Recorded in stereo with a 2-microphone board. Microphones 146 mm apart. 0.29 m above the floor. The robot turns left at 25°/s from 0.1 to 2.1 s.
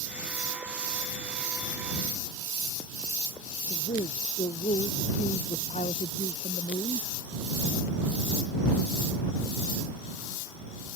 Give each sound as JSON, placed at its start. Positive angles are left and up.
{"t": 3.7, "sound": "a man speaking", "side_deg": 55}